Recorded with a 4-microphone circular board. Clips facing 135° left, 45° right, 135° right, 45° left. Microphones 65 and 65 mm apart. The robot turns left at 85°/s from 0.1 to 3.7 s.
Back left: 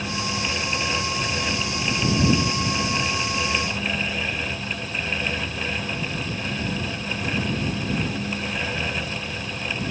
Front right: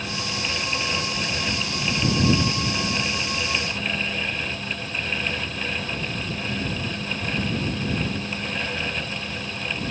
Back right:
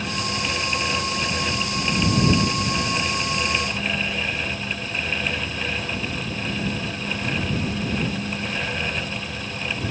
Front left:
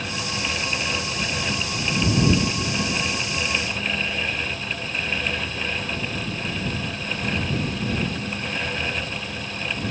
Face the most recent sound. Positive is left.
No sound to turn to.